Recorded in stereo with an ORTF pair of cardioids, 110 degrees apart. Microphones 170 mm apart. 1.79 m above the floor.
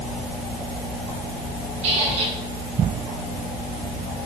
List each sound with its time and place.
1.8 s a squeak: 40° right, 8.5 m